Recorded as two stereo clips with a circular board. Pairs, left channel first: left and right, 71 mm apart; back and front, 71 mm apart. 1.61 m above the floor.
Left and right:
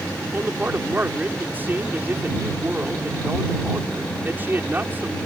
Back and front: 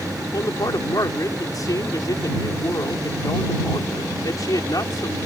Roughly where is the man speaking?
Behind right.